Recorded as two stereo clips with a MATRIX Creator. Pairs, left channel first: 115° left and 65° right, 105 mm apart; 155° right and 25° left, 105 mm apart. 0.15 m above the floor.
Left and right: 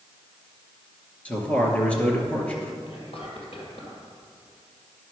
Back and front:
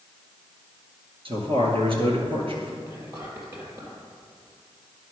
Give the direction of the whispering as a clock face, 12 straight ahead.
9 o'clock.